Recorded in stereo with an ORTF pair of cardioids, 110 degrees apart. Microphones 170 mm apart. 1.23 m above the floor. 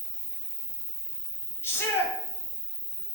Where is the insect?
20° right, 1.2 m.